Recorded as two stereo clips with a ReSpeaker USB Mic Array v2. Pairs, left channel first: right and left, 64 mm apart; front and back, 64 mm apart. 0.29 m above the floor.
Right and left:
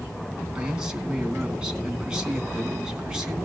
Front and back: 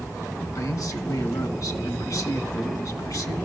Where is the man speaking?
15° left, 2.5 m.